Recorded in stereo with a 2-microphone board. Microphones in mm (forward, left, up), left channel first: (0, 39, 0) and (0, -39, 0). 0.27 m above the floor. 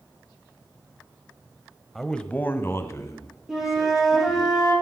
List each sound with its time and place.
1.9 s a man speaking: centre (ahead or behind), 1.1 m; by 4.5 s 50° left (ahead or behind), 4 m
3.5 s a flute: 5° right (ahead or behind), 7 m